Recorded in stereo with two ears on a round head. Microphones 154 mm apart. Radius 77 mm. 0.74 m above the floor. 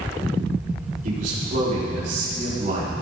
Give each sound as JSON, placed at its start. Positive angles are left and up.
{"t": 1.0, "sound": "a man speaking", "side_deg": -55, "distance_m": 3.5}